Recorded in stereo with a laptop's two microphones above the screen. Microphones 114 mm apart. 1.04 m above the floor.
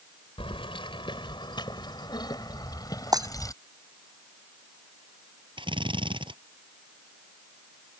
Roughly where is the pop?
I don't hear a pop.